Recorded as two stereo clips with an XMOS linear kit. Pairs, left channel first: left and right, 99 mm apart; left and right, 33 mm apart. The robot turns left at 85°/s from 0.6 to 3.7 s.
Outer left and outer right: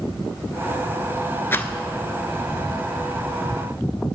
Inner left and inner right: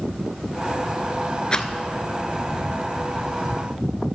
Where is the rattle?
25° left (ahead or behind), 0.5 m; by 1.7 s 10° left (ahead or behind), 0.5 m.